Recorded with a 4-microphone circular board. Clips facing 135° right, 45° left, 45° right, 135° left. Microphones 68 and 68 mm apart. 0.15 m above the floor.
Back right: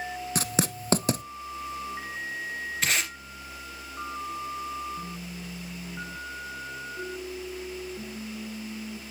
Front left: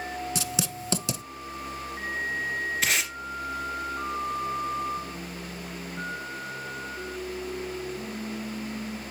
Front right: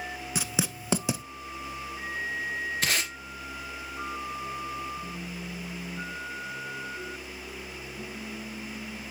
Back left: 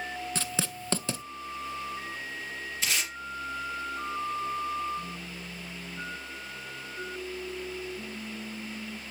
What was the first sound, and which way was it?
Writing, 120° right.